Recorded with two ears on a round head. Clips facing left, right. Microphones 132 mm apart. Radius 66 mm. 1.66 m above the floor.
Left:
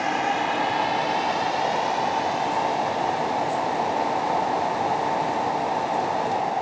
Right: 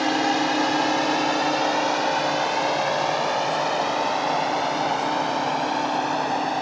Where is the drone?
40° right (ahead or behind); by 6.6 s 75° right (ahead or behind).